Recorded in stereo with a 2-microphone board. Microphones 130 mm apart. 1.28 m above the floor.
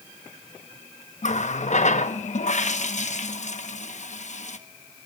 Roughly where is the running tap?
Left.